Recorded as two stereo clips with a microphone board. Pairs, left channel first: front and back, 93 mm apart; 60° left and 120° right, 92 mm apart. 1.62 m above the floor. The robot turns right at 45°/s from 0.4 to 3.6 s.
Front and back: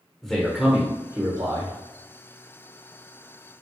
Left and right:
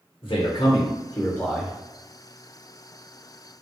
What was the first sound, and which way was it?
A man speaking, 85° left.